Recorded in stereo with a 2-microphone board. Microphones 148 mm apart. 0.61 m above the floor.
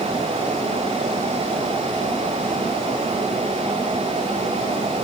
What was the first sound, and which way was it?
Only background noise.